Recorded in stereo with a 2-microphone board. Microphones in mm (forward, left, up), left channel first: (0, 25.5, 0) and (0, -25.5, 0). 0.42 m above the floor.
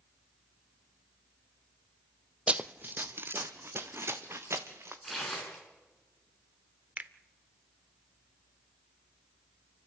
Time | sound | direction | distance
2.5 | running footsteps | 20° right (ahead or behind) | 0.5 m
5.0 | tearing paper | centre (ahead or behind) | 5.5 m
7.0 | a finger snap | 25° right (ahead or behind) | 0.8 m